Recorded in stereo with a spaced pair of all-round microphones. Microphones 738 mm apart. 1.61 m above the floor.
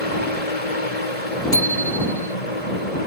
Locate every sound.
0.0 s a fan: 55° left (ahead or behind)
1.5 s a bicycle bell: 40° left (ahead or behind)